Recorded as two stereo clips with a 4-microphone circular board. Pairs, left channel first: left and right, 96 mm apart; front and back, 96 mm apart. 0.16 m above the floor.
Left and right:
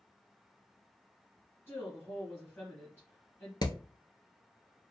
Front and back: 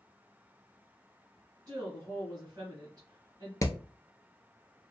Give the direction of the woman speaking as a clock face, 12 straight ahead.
7 o'clock.